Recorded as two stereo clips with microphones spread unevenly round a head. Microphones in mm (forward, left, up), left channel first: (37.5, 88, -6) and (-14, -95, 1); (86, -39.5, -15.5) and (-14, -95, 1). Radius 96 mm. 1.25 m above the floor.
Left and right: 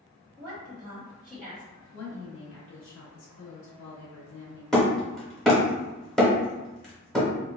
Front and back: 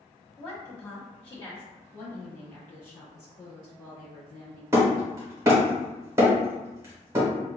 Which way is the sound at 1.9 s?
100° left.